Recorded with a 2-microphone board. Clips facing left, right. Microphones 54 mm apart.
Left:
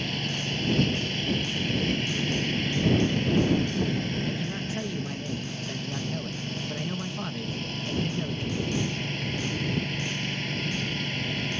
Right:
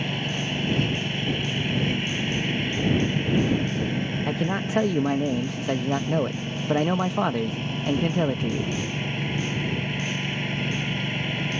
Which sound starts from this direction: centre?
A lawn mower, at 0.0 s.